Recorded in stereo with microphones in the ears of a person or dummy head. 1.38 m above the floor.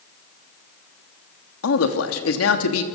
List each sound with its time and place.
1.6 s a man speaking: 80° left, 2.5 m